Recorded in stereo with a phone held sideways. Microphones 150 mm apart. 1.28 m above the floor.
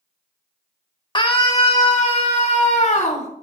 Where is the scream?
30° left (ahead or behind), 1.5 m; by 3.3 s 50° left (ahead or behind), 4 m.